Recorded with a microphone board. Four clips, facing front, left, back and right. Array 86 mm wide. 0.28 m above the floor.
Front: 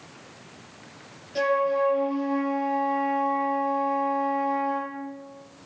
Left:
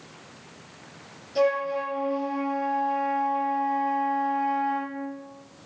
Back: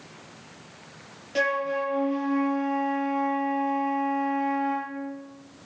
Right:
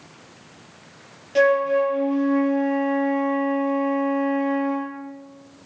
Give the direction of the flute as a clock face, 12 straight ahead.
4 o'clock.